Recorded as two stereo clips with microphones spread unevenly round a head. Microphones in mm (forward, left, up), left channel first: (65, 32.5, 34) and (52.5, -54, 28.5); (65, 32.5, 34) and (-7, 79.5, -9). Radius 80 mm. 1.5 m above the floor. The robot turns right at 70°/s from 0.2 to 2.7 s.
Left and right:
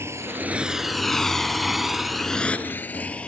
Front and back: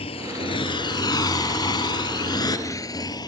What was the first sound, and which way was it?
A motorcycle, 35° right.